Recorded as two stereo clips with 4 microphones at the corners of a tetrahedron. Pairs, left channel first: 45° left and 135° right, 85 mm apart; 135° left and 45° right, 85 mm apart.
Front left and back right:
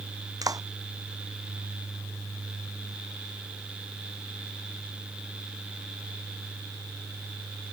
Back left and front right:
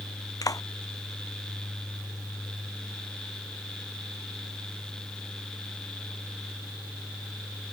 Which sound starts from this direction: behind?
A clap, at 0.4 s.